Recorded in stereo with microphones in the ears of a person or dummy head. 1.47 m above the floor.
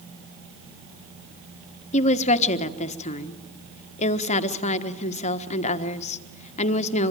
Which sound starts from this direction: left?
A woman speaking, at 1.9 s.